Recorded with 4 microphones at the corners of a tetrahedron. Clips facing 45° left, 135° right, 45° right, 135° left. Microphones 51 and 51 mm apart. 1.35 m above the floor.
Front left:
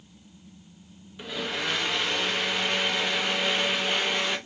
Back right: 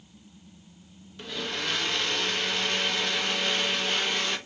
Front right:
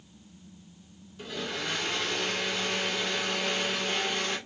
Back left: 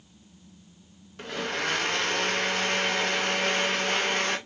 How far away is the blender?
About 0.9 m.